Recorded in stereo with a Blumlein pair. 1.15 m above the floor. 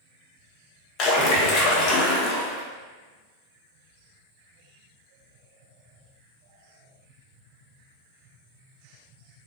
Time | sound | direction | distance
1.0 | a splash | 35° left | 0.6 m